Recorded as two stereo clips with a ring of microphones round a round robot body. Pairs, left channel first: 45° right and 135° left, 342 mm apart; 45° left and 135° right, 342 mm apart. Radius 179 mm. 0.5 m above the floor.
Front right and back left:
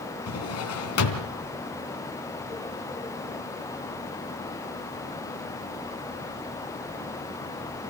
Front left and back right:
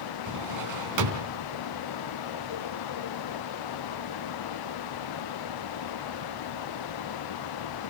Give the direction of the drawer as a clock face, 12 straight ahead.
3 o'clock.